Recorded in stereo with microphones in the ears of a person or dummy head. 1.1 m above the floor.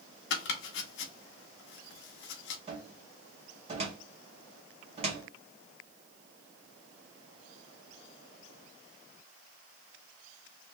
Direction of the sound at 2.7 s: 35° right (ahead or behind).